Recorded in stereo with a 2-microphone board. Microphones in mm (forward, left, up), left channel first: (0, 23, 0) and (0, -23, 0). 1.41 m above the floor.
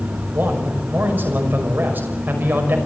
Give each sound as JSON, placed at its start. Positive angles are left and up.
{"t": 0.3, "sound": "a man speaking", "side_deg": -40, "distance_m": 5.5}